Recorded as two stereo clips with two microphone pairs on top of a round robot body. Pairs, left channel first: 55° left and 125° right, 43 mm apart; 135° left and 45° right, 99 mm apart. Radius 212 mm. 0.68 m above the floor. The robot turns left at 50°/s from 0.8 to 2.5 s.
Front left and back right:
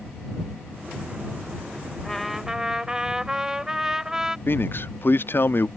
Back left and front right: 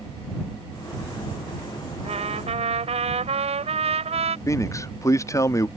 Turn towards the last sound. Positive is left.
turn(degrees=75)